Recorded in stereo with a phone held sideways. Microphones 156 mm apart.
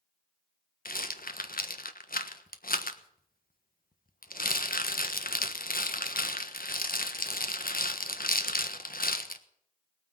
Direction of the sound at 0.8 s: 80° left.